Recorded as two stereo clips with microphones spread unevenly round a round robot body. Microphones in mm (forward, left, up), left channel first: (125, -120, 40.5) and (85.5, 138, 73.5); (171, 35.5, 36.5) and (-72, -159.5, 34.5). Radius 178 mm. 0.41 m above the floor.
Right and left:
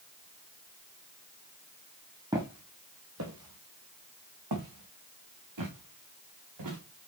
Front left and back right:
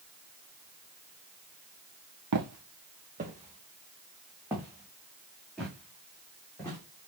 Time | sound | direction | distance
2.3 | footsteps | 175° left | 0.9 m